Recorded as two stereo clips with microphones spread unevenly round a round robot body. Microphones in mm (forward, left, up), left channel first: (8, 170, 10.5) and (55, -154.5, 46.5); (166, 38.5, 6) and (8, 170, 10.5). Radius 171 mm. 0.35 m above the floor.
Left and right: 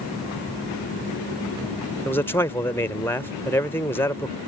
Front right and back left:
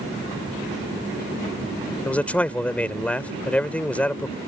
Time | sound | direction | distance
2.0 | a man speaking | 35° left | ?